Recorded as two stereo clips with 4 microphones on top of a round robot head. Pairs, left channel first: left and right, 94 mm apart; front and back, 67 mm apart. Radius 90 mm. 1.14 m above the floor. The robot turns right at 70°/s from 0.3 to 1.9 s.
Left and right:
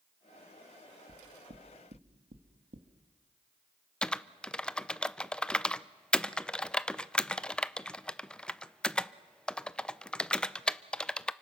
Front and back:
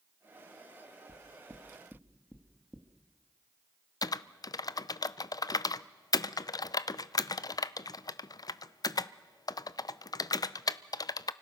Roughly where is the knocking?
Behind right.